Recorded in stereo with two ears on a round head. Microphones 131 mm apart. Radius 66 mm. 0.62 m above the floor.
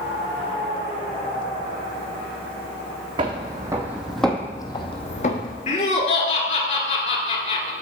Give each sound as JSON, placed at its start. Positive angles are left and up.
{"t": 3.2, "sound": "footsteps", "side_deg": -30, "distance_m": 1.8}
{"t": 5.7, "sound": "laughter", "side_deg": 45, "distance_m": 1.9}